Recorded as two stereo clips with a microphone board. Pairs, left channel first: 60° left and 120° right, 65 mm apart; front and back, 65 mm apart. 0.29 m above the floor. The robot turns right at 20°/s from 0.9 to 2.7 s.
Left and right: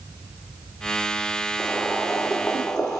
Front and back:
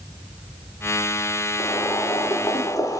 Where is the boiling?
40° right, 3 m; by 3.0 s 20° right, 3 m.